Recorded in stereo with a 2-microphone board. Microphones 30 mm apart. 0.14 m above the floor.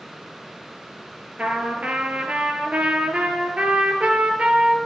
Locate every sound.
1.4 s a trumpet: 45° right (ahead or behind), 1.0 m